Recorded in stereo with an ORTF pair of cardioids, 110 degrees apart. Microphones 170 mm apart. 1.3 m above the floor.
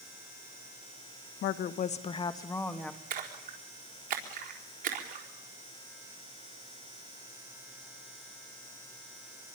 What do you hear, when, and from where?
1.4 s a woman speaking: 70° left, 1.2 m; by 3.0 s 5° left, 2.0 m
3.1 s a splash: 55° right, 4 m